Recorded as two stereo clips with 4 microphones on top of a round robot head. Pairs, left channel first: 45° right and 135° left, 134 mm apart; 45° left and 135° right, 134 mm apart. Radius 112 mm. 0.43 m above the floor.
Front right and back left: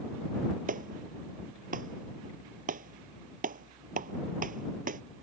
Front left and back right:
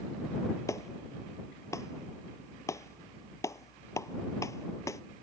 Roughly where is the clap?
Behind left.